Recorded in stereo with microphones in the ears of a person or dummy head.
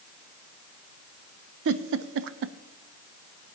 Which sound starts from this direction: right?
A giggle, at 1.6 s.